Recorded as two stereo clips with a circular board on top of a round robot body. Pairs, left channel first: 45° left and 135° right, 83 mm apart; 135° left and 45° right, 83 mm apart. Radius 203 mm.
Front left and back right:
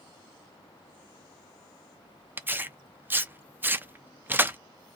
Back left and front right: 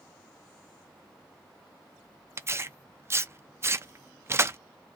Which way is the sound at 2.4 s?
85° right.